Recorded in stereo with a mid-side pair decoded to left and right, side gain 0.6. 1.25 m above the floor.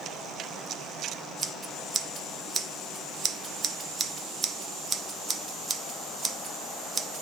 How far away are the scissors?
About 0.7 m.